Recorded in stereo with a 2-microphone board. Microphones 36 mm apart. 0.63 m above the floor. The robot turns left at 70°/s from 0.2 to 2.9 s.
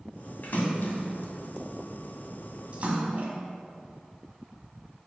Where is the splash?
50° left (ahead or behind), 1.7 m; by 3.3 s 45° right (ahead or behind), 1.7 m.